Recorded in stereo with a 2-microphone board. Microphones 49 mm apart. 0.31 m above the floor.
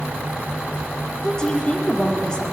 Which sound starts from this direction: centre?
A woman speaking, at 1.2 s.